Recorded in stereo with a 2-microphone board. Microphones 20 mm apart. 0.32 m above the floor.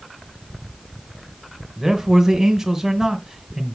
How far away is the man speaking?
About 1.2 m.